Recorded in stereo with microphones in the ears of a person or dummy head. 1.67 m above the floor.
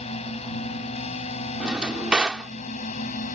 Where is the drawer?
5° right (ahead or behind).